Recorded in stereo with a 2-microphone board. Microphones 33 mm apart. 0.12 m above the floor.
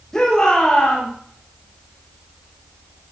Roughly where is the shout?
Centre.